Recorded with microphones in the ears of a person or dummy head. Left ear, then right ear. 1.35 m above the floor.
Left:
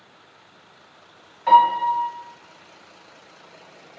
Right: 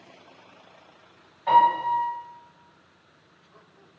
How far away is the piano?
About 1.2 m.